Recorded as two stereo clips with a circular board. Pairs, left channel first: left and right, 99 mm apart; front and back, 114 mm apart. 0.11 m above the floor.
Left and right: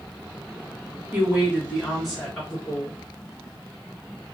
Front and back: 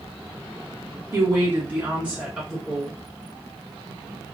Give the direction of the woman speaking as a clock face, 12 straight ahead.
4 o'clock.